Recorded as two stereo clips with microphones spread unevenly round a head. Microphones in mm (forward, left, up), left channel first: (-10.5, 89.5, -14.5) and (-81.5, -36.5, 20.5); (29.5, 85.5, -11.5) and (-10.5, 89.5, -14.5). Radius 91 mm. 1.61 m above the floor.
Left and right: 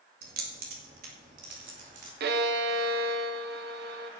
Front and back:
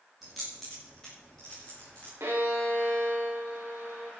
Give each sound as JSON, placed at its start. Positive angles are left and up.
{"t": 0.2, "sound": "keys jangling", "azimuth_deg": -95, "distance_m": 2.0}
{"t": 2.2, "sound": "a violin", "azimuth_deg": -115, "distance_m": 1.1}